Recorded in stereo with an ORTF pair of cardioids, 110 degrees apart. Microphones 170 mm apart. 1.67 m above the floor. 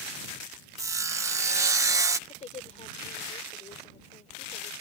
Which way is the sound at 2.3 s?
35° left.